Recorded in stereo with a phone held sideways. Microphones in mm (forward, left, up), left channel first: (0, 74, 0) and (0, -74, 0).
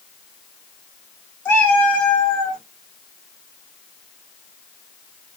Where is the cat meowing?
15° left (ahead or behind), 1.3 m; by 2.6 s 5° left (ahead or behind), 1.8 m.